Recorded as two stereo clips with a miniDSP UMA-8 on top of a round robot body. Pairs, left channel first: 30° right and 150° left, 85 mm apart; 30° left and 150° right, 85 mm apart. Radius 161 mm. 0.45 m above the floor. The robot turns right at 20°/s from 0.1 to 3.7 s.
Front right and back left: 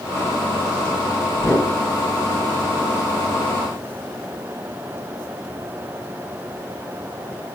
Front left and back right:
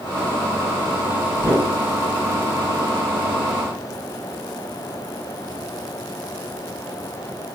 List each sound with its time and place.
1.4 s a whoosh: 85° right, 1.7 m; by 1.7 s 75° right, 1.7 m